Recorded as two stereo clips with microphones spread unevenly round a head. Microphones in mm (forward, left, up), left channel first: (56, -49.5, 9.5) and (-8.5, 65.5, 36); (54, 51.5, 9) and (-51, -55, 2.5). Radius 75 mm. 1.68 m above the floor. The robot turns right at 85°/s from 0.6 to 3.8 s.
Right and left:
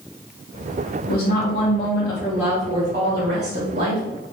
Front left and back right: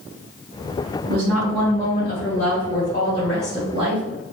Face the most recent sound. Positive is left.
turn(degrees=165)